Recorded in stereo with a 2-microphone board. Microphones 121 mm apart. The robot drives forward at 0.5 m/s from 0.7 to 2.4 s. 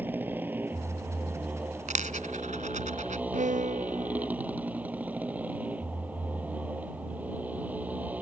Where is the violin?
80° right.